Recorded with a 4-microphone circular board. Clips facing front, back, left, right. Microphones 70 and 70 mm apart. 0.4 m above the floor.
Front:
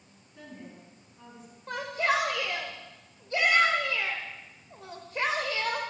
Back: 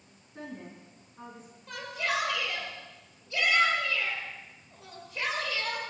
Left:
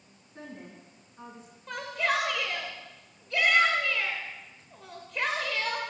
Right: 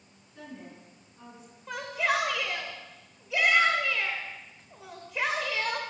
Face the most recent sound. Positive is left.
turn(degrees=-10)